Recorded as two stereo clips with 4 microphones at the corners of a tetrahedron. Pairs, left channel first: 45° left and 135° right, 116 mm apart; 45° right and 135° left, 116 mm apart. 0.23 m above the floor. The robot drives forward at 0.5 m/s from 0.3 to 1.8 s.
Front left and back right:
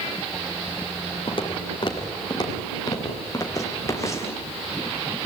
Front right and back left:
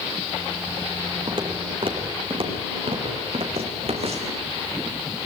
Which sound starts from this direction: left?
Footsteps, at 1.3 s.